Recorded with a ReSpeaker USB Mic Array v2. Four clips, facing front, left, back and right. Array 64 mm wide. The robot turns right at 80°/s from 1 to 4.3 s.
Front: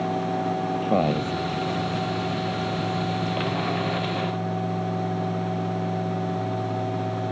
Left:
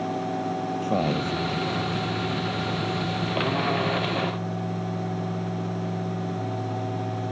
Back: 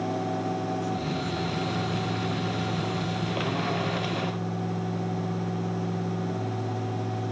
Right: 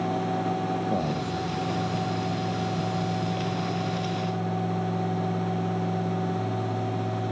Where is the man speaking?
15° left; by 1.3 s 45° left.